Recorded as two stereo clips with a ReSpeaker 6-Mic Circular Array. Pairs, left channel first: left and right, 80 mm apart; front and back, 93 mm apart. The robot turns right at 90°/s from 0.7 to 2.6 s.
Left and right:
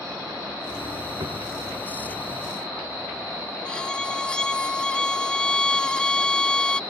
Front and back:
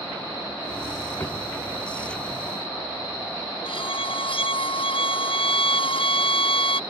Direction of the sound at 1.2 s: 65° right.